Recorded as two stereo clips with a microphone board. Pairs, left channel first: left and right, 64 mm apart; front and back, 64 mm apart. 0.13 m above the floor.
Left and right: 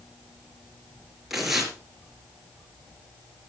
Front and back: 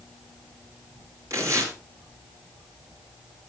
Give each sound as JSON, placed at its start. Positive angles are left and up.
{"t": 1.3, "sound": "tearing paper", "azimuth_deg": -175, "distance_m": 2.5}